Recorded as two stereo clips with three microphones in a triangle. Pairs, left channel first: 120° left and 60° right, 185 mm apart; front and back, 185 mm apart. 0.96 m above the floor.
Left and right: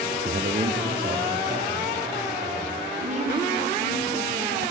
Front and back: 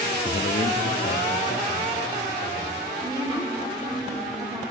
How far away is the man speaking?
About 0.5 m.